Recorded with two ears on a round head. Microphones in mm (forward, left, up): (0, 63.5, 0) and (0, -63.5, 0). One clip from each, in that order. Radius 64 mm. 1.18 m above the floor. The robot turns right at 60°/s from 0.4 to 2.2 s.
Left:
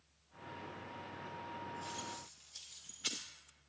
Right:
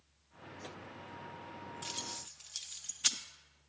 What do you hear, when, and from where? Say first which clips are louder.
1.8 s keys jangling: right 3 dB; 55° right (ahead or behind), 0.5 m; by 3.2 s 40° right (ahead or behind), 0.5 m